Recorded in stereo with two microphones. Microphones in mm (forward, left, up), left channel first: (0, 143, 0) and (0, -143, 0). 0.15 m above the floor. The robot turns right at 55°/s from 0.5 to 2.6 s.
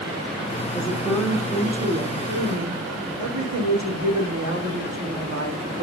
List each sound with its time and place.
0.7 s a woman speaking: 145° left, 8 m; by 5.8 s 110° right, 8 m